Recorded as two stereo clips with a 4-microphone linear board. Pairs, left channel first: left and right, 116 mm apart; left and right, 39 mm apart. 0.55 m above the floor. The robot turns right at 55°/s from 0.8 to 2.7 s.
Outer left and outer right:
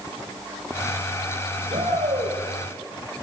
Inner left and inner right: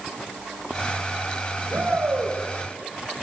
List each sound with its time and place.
1.7 s a shout: 125° right, 7 m; by 2.4 s 85° right, 7 m